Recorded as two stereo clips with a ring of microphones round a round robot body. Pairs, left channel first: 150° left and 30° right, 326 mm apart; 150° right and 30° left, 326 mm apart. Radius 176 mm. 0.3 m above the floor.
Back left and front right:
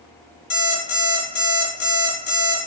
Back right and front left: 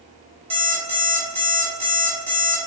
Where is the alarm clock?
100° left, 1.6 m.